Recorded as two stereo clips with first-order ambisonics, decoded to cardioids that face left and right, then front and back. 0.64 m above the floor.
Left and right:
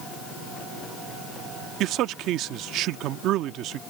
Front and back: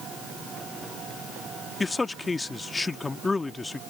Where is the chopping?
No chopping in this recording.